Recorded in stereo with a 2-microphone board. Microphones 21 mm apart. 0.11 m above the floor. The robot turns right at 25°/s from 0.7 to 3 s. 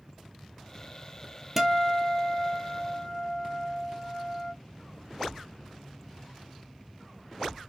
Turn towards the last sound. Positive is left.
turn(degrees=30)